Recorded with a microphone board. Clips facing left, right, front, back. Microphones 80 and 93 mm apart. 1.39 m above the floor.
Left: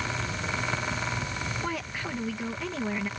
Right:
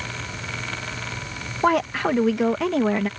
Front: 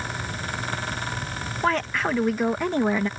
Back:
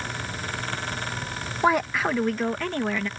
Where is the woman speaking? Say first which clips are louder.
Right 13 dB, back 2 dB; 105° right; by 3.1 s 65° right.